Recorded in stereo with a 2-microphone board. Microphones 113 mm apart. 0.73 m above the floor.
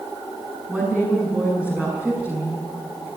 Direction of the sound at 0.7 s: 10° right (ahead or behind).